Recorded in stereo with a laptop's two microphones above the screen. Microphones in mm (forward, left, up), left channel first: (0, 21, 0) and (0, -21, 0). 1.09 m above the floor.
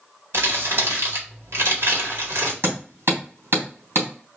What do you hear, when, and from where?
0.3 s crumpling: 85° right, 1.8 m
2.6 s hammering: 80° right, 3 m